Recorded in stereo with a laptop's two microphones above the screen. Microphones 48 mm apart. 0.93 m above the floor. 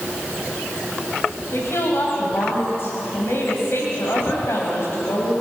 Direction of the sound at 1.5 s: 55° left (ahead or behind).